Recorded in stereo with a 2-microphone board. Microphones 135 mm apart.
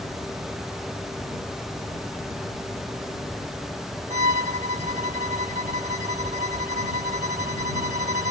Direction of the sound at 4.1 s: 70° right (ahead or behind).